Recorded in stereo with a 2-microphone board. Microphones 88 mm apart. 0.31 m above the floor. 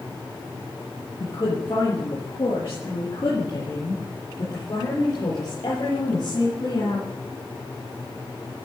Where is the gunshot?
No gunshot in this recording.